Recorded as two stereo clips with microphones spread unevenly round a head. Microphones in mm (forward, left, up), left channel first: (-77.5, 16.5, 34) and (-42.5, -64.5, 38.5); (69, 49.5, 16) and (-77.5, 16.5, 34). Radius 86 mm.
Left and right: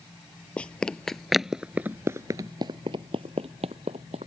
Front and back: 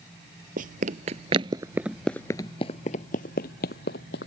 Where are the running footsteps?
170° right; by 4.3 s 20° right.